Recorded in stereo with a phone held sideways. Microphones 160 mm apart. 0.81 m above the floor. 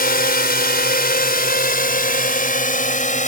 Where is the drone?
70° left (ahead or behind); by 3.3 s 55° left (ahead or behind).